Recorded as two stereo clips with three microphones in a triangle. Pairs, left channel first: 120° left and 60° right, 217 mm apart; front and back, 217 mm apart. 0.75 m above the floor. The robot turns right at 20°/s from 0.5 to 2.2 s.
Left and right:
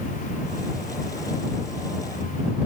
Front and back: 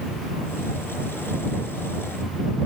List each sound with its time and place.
Only background noise.